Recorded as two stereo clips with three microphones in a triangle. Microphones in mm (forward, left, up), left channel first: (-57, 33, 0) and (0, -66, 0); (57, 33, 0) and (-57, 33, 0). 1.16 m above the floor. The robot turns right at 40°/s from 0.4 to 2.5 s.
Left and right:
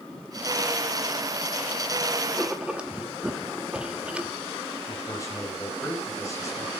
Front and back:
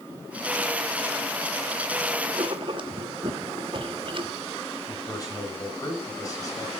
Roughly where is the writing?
Behind right.